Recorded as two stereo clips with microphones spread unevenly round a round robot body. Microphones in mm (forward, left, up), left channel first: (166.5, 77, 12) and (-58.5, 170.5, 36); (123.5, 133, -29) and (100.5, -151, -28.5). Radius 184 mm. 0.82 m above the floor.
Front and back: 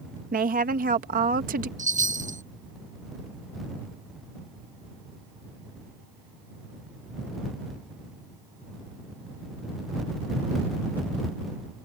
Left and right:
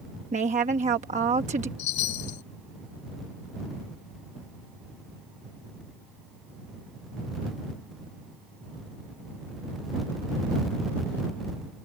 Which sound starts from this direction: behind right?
A woman speaking, at 0.3 s.